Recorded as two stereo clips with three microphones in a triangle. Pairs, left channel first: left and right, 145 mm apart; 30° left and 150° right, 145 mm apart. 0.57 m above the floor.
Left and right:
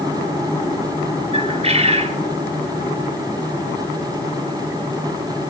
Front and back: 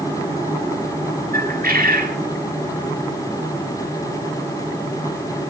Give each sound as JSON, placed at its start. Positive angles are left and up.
{"t": 1.3, "sound": "a bird", "azimuth_deg": -140, "distance_m": 3.0}